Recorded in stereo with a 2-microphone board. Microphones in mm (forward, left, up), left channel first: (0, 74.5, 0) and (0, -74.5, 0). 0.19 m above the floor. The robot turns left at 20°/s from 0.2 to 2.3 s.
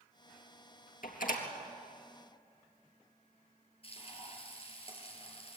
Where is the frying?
40° left (ahead or behind), 4.5 m.